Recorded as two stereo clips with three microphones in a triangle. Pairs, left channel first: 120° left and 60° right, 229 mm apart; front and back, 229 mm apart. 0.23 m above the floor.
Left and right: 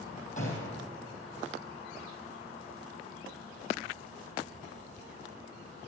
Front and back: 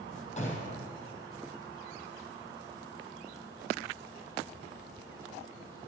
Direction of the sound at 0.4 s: 65° left.